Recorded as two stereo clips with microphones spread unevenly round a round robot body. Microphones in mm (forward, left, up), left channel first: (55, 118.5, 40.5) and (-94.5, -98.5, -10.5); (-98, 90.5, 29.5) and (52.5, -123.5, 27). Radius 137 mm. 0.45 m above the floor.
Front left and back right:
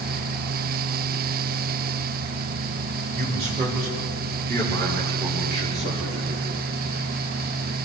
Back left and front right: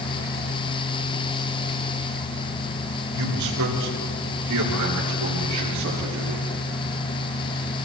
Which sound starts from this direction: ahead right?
A man speaking, at 3.1 s.